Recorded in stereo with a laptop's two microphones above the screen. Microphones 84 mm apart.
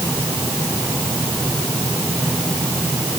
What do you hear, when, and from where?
Only background noise.